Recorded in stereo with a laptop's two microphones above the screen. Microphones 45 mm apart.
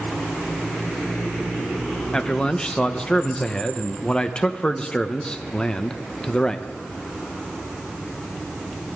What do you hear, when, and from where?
2.1 s a man speaking: 20° left (ahead or behind), 0.6 m